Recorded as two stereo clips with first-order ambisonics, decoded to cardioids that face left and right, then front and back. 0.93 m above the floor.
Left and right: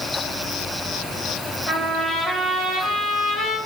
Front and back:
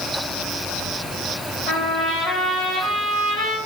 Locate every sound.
1.7 s a trumpet: 30° left, 4.5 m